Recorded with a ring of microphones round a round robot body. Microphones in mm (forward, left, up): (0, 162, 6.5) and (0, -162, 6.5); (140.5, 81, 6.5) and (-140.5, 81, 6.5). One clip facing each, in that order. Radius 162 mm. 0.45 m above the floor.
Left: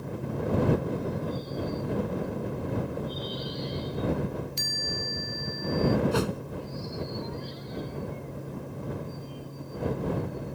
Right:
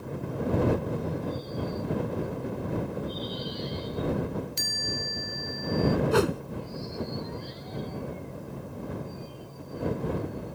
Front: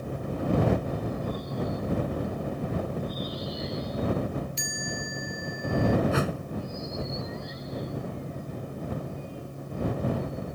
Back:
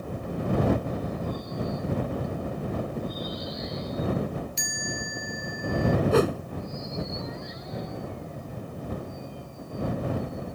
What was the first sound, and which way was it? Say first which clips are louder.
A chime: even, even; 130° right.